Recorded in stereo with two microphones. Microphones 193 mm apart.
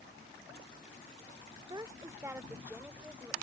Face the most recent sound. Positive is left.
turn(degrees=-5)  # may be behind; listen again after turning